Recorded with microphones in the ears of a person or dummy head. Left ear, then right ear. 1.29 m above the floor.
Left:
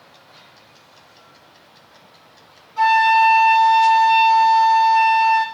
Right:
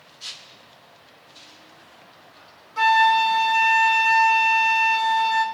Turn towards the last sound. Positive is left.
turn(degrees=-70)  # may be behind; listen again after turning